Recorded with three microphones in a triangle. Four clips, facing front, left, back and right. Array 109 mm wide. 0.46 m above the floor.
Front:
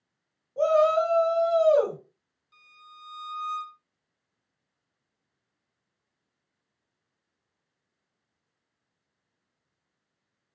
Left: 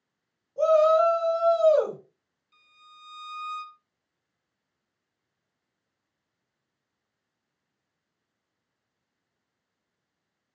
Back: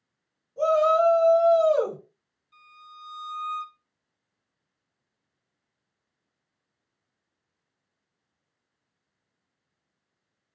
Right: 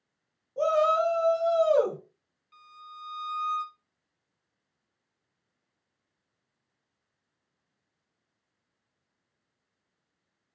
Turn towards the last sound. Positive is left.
turn(degrees=-75)